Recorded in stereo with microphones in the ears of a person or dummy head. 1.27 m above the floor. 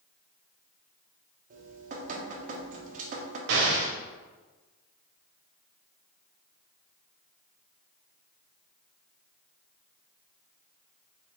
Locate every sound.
1.5 s dripping: 50° right (ahead or behind), 0.6 m
3.5 s an explosion: 60° right (ahead or behind), 0.5 m